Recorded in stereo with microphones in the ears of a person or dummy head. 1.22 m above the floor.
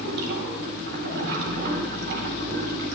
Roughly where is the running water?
Right.